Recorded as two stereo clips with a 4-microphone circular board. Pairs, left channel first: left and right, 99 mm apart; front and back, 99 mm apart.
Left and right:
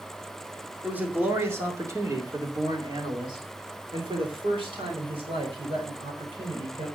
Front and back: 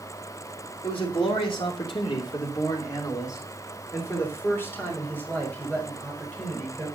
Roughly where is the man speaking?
Ahead.